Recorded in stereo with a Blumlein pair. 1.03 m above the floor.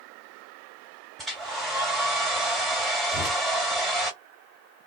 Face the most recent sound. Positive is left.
turn(degrees=-5)